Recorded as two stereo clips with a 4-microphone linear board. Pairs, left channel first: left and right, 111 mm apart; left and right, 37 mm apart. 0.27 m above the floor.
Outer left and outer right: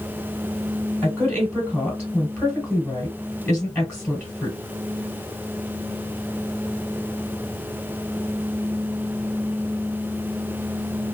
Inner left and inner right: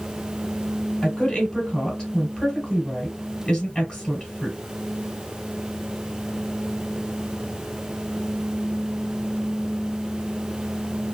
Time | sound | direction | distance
1.0 | a woman speaking | 15° left (ahead or behind) | 1.1 m